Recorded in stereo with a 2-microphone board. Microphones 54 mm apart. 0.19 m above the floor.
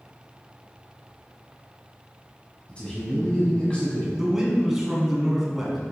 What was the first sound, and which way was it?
A man speaking, 20° left (ahead or behind).